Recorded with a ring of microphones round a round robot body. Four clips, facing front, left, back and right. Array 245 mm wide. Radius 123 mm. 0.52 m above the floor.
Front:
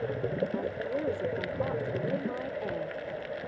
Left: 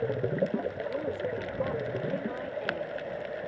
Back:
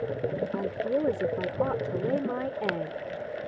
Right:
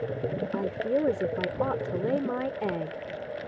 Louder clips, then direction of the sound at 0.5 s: Right 5 dB, back 4 dB; 125° right.